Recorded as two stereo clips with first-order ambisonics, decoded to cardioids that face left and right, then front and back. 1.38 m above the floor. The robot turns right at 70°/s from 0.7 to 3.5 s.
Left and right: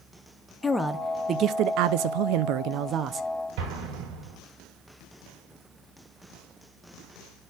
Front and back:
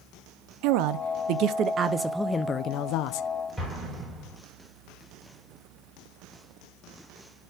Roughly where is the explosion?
Right.